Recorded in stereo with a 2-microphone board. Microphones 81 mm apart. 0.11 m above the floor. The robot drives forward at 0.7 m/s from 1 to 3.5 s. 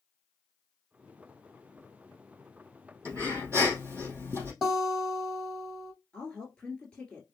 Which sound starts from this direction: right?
Breathing, at 3.0 s.